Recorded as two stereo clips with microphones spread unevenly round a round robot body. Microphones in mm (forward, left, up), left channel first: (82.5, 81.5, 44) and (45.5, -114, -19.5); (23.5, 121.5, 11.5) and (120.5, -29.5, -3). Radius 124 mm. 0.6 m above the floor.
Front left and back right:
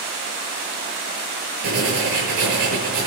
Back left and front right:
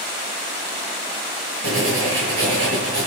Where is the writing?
95° right, 6.5 m.